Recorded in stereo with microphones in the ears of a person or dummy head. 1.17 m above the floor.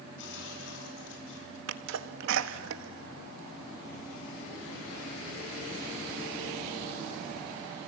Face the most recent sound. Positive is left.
turn(degrees=-70)  # may be behind; listen again after turning